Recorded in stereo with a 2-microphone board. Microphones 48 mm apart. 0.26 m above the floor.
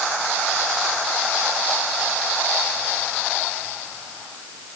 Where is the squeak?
I don't hear a squeak.